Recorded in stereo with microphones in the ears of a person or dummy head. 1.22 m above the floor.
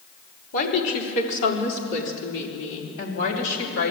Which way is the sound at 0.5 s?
65° left (ahead or behind).